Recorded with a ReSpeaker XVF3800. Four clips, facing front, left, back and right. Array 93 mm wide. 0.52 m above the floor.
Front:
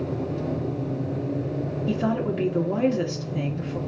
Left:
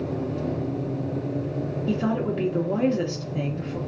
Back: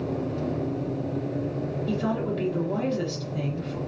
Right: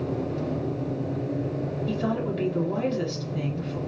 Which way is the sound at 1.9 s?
40° left.